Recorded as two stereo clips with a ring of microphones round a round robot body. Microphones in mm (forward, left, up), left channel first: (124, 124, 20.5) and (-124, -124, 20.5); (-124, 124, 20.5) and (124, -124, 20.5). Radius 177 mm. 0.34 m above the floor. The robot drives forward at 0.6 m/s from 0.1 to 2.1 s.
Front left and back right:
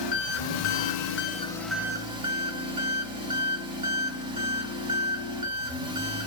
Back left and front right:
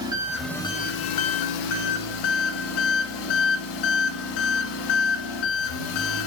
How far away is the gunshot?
No gunshot in this recording.